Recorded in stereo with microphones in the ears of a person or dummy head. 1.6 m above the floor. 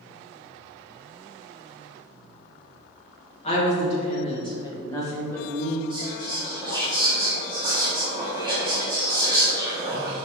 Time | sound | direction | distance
3.4 | a woman speaking | 40° left (ahead or behind) | 2 m
5.9 | whispering | 20° right (ahead or behind) | 1.2 m